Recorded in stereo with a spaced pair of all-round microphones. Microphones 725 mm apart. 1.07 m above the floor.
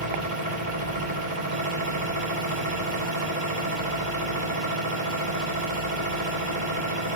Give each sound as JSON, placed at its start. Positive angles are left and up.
{"t": 0.0, "sound": "a machine running", "side_deg": -85, "distance_m": 4.0}